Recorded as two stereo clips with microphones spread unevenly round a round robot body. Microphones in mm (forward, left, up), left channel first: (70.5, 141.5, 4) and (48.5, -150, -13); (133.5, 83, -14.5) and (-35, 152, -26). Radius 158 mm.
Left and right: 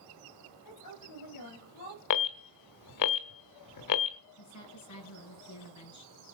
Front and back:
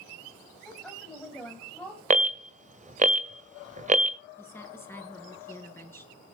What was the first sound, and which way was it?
A woman speaking, 65° left.